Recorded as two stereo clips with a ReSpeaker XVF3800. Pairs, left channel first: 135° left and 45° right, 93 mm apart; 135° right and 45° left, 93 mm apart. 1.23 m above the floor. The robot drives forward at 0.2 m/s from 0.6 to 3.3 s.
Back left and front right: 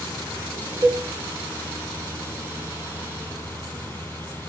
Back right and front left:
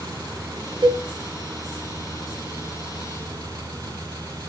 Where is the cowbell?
15° left, 0.8 m.